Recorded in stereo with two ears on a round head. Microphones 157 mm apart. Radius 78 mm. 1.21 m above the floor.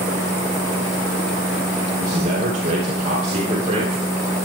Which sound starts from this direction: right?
A man speaking, at 2.0 s.